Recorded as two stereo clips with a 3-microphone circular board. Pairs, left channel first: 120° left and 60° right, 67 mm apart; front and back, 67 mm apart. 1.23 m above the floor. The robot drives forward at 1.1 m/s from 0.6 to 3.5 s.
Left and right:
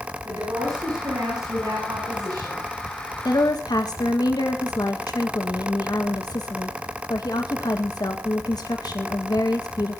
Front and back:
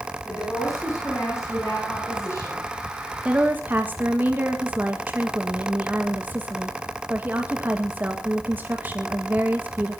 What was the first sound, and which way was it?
A woman speaking, 40° right.